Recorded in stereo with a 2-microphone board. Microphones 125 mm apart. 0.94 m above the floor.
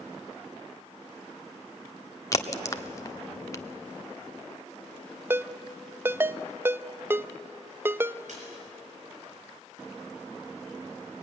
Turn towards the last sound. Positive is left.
turn(degrees=-70)  # may be behind; listen again after turning